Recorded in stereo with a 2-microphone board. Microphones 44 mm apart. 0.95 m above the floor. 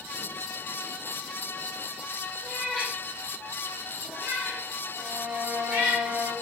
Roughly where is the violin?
Right.